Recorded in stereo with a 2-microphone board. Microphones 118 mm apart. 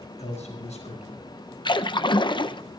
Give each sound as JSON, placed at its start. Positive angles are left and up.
{"t": 0.2, "sound": "a man speaking", "side_deg": 75, "distance_m": 5.0}
{"t": 1.6, "sound": "a splash", "side_deg": 40, "distance_m": 0.6}